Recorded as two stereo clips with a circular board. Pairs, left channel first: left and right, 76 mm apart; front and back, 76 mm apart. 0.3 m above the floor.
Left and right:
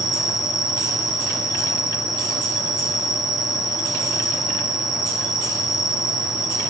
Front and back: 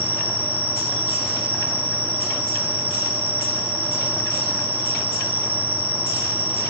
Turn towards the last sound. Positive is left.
turn(degrees=-65)